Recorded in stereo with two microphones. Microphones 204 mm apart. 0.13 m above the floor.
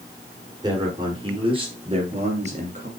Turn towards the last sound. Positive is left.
turn(degrees=-40)  # may be behind; listen again after turning